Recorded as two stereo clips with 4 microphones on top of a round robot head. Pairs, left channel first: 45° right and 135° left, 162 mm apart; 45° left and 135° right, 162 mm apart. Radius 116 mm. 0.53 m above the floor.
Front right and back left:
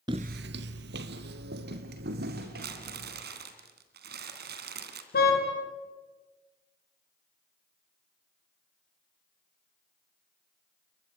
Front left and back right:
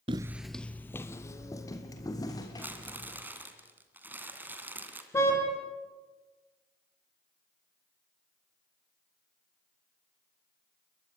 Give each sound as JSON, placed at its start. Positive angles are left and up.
{"t": 0.1, "sound": "footsteps", "azimuth_deg": -175, "distance_m": 0.5}
{"t": 2.6, "sound": "crumpling", "azimuth_deg": 150, "distance_m": 2.5}
{"t": 5.1, "sound": "a car horn", "azimuth_deg": -25, "distance_m": 5.0}